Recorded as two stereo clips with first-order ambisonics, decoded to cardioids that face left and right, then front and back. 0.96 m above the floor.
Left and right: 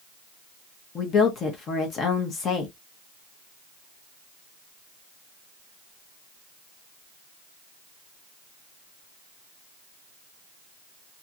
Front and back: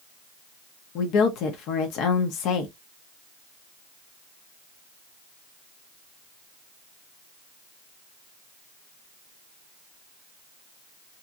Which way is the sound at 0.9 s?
30° left.